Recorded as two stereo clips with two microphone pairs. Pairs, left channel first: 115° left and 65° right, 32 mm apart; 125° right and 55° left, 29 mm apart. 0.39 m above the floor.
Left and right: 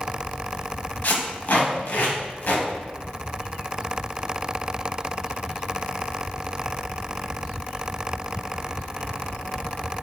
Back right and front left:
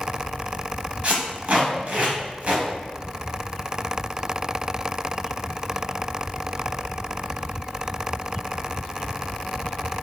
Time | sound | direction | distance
1.0 | tape being pulled | 95° left | 0.9 m